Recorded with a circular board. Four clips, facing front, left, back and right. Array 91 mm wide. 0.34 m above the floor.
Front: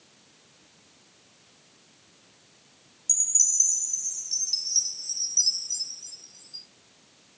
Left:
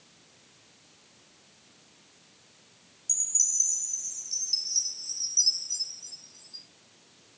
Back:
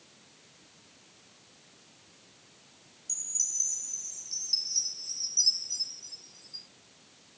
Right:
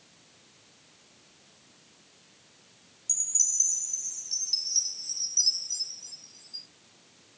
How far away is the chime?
About 0.9 m.